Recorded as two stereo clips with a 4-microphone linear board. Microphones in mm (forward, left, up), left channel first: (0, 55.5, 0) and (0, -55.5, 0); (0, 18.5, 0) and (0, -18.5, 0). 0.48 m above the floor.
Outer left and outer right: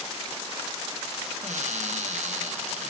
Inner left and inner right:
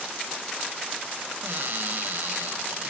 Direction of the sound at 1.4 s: 75° right (ahead or behind).